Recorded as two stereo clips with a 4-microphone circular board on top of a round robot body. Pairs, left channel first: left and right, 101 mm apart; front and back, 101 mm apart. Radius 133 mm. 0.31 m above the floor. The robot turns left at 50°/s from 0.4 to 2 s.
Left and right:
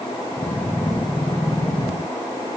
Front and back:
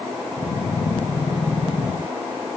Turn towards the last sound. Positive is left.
No sound to turn to.